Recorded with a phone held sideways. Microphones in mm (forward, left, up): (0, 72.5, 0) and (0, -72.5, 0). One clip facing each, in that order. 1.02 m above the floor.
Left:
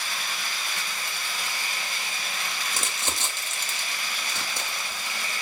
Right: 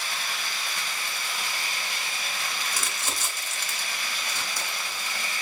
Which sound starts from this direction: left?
Crumpling, at 2.7 s.